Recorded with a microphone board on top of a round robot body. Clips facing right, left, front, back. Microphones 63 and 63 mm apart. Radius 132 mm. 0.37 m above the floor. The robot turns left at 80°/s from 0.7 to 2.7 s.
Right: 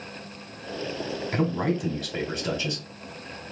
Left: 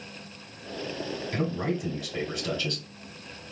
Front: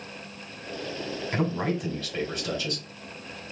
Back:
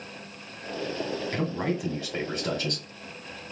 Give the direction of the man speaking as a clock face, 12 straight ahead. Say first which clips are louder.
Right 4 dB, front 3 dB; 2 o'clock.